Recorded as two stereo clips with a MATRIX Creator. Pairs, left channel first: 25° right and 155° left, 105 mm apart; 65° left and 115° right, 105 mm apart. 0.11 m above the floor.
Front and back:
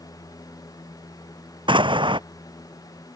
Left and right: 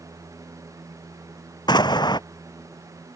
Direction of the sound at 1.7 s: 115° left.